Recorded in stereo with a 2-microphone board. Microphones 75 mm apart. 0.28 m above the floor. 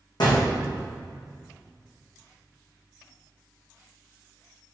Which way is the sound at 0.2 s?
70° left (ahead or behind).